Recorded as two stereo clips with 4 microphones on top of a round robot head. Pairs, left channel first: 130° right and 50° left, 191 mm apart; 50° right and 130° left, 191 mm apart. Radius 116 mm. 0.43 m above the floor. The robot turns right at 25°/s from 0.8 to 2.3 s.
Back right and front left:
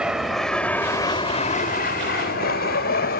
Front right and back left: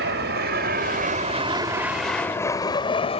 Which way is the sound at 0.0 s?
135° left.